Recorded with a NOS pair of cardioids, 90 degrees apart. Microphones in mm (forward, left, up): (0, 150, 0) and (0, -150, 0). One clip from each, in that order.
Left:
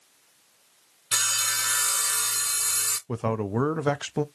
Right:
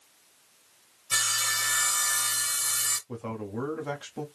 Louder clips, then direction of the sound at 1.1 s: Left 1 dB; 20° left.